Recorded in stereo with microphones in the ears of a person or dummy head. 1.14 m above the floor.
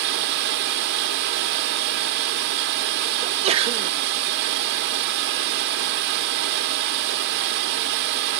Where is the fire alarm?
I don't hear a fire alarm.